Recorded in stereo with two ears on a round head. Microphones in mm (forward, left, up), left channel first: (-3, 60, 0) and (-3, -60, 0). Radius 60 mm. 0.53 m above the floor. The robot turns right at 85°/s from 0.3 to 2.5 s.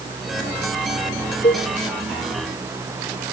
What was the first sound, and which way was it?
A cowbell, 45° left (ahead or behind).